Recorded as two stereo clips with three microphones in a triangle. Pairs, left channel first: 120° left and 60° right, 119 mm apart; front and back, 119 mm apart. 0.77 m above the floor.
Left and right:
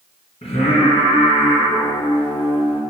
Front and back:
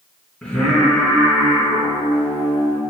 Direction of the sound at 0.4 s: 85° left.